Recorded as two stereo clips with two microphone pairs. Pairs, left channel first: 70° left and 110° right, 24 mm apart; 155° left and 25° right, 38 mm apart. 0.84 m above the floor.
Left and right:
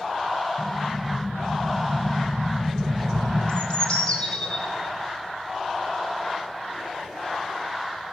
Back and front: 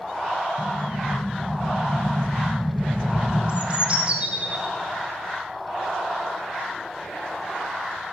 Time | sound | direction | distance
0.6 | an explosion | 85° right | 3 m
3.5 | a bird | 35° left | 2.5 m